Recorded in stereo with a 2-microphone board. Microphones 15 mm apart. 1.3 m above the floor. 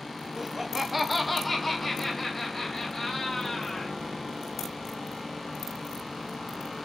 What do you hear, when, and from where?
0.4 s laughter: 20° right (ahead or behind), 0.7 m; by 4.0 s 15° left (ahead or behind), 2.5 m